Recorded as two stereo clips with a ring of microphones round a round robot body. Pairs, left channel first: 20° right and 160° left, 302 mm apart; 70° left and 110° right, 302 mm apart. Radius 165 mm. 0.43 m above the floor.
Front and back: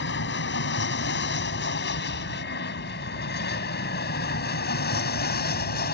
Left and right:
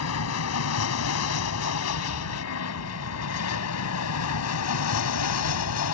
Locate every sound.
0.0 s an aircraft: 30° left; by 6.0 s 35° left